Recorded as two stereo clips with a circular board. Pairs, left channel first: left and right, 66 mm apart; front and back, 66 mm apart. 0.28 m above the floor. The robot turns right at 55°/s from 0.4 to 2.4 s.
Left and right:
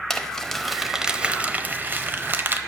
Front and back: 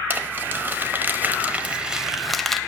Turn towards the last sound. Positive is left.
turn(degrees=-85)